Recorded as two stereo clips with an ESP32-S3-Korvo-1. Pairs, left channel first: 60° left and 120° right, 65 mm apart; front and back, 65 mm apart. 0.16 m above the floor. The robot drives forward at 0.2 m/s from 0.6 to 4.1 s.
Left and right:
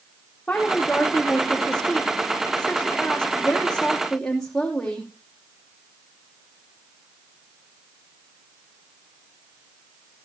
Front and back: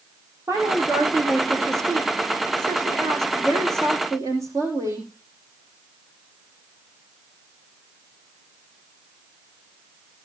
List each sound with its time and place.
0.5 s a woman speaking: 140° left, 6.5 m; by 5.1 s 145° left, 7.5 m